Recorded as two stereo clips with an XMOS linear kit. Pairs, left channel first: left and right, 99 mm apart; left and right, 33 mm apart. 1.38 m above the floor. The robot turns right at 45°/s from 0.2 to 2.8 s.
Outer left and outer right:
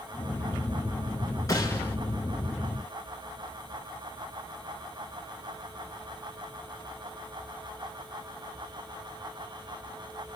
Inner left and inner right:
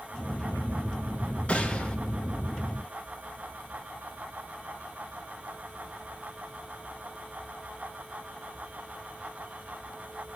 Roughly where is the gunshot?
Left.